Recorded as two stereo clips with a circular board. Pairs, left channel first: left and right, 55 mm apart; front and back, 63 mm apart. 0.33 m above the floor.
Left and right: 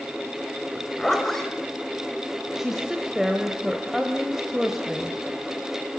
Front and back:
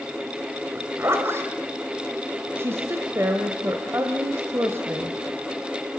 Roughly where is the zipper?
Behind.